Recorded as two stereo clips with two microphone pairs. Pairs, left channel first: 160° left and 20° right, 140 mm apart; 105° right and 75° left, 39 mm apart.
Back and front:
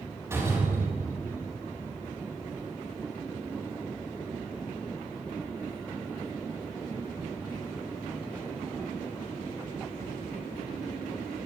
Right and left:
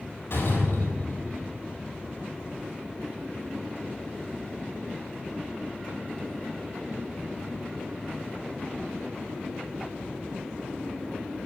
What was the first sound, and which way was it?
A door slam, 95° right.